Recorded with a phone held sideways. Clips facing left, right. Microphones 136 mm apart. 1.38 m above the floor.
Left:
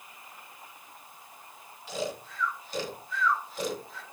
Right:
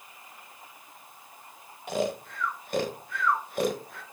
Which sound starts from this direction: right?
Snoring, at 1.9 s.